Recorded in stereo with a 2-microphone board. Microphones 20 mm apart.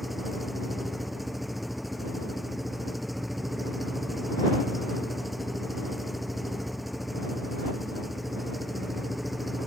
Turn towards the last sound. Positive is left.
turn(degrees=-5)  # may be behind; listen again after turning